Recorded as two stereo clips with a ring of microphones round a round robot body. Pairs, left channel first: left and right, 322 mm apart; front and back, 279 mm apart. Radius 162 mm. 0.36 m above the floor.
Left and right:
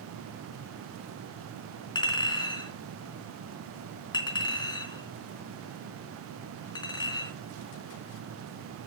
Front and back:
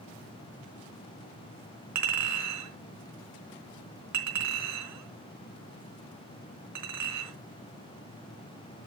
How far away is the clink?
About 3.5 m.